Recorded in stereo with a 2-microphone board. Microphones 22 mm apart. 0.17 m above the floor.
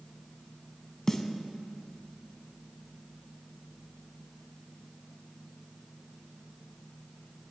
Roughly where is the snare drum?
Centre.